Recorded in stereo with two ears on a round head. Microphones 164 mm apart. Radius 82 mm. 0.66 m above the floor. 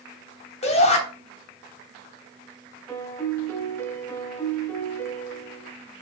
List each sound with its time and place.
0.6 s a shout: 40° left (ahead or behind), 3 m
2.9 s a piano: 15° left (ahead or behind), 1.8 m